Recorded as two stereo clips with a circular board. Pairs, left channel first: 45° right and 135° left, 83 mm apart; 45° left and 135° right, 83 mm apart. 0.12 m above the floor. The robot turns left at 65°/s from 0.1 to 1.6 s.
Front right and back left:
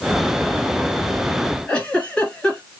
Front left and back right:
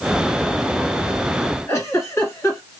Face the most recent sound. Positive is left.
turn(degrees=20)